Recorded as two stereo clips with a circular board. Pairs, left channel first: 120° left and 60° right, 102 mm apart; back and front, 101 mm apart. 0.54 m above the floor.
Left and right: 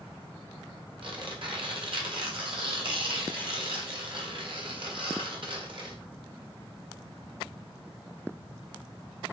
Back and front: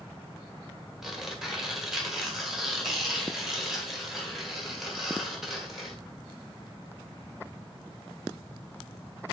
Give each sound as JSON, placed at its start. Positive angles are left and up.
{"t": 1.0, "sound": "tearing paper", "azimuth_deg": -85, "distance_m": 1.6}